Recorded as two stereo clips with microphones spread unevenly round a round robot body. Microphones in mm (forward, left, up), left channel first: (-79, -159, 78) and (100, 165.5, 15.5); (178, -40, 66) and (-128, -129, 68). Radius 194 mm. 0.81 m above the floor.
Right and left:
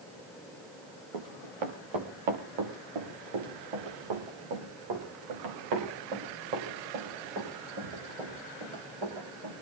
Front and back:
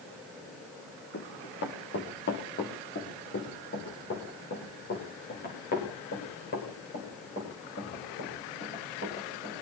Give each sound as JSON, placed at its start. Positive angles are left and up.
{"t": 1.1, "sound": "running footsteps", "azimuth_deg": 80, "distance_m": 4.0}